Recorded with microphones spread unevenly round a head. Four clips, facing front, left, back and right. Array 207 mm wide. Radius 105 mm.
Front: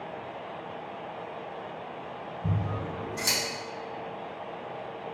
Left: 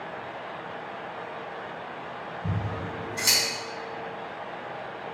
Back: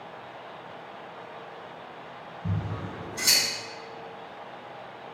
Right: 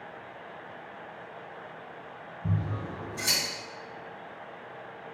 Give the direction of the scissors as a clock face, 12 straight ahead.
11 o'clock.